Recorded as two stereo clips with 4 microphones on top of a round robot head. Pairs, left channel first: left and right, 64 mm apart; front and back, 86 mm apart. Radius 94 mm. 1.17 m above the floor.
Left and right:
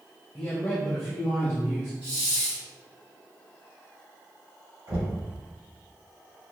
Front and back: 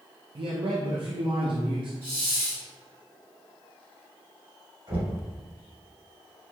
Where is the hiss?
150° right, 1.8 m.